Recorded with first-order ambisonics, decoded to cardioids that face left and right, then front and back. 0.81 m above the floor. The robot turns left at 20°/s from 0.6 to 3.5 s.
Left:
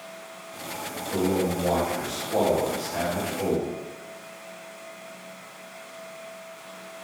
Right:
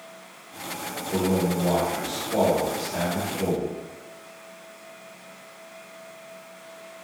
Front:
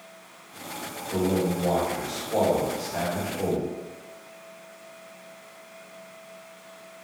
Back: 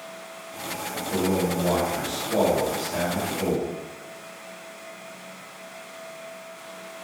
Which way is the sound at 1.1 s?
135° right.